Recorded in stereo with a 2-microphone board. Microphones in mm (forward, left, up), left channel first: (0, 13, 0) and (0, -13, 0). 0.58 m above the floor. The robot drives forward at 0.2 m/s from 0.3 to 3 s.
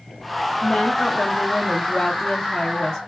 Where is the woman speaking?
20° left (ahead or behind), 0.6 m; by 3.0 s 15° left (ahead or behind), 0.7 m.